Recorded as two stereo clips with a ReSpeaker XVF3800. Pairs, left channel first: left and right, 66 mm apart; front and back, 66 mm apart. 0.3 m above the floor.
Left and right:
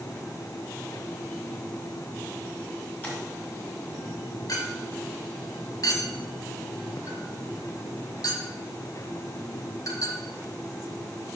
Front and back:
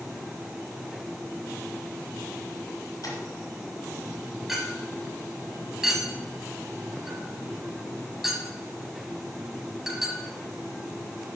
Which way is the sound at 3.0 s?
25° left.